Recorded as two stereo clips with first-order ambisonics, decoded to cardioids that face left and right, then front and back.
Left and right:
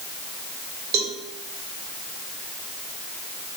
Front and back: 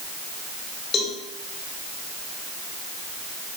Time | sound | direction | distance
0.9 | a cowbell | 60° right | 3 m